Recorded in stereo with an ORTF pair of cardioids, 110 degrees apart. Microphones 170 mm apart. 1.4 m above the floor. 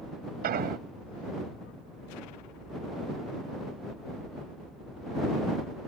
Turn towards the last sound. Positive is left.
turn(degrees=-60)